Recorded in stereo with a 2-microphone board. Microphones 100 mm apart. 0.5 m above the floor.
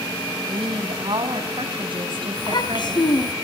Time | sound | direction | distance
0.5 | a woman speaking | 60° right (ahead or behind) | 4 m
2.4 | a child speaking | 50° left (ahead or behind) | 2 m